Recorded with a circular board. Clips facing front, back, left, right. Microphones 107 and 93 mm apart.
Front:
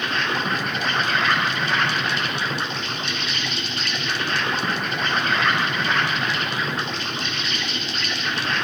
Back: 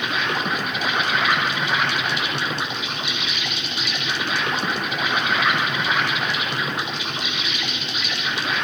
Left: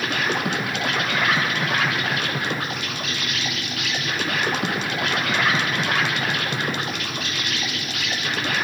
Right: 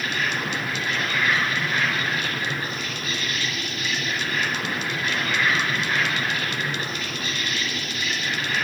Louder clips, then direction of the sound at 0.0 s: Even, left 3 dB; 100° left.